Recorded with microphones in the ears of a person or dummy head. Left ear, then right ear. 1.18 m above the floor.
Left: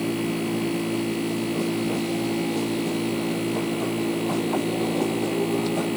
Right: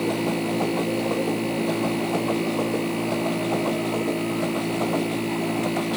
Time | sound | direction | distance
0.0 | a machine running | 10° right (ahead or behind) | ?